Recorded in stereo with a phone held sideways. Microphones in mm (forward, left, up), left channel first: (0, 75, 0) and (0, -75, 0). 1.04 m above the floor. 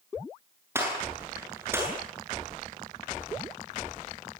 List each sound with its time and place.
0.8 s a gunshot: 15° right (ahead or behind), 8 m